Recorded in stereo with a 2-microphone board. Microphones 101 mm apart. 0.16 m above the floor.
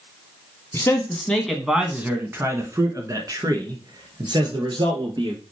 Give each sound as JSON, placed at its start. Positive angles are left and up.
{"t": 0.7, "sound": "a man speaking", "side_deg": 25, "distance_m": 1.2}